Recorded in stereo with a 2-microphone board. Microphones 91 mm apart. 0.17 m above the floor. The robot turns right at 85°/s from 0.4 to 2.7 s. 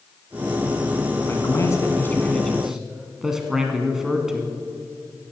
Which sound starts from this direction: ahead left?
A man speaking, at 1.3 s.